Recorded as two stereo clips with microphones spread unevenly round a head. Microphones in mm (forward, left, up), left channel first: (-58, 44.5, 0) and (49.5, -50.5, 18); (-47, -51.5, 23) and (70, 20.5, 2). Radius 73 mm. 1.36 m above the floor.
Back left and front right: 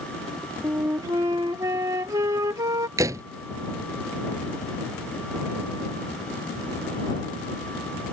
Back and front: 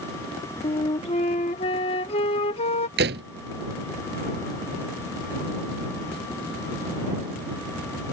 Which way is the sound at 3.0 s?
30° left.